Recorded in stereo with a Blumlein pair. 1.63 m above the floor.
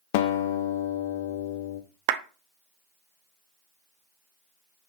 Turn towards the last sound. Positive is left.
turn(degrees=-50)